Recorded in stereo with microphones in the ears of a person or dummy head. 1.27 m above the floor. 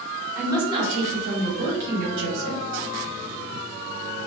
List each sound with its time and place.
0.3 s a woman speaking: 10° right (ahead or behind), 1.0 m; by 2.6 s 65° right (ahead or behind), 1.1 m